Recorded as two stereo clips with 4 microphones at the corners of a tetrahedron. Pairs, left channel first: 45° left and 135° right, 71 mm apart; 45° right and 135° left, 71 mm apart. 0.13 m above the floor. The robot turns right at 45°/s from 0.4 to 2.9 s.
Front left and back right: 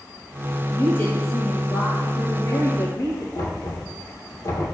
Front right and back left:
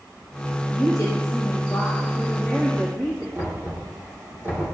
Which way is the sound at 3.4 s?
75° left.